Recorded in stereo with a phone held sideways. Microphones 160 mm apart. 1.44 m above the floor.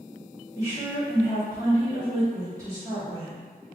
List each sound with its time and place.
0.6 s a woman speaking: 20° right (ahead or behind), 2.0 m